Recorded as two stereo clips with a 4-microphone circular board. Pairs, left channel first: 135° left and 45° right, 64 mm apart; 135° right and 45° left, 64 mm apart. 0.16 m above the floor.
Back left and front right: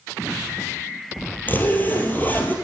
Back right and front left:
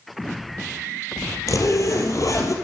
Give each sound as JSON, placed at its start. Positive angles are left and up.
{"t": 1.5, "sound": "a zipper", "azimuth_deg": -165, "distance_m": 1.8}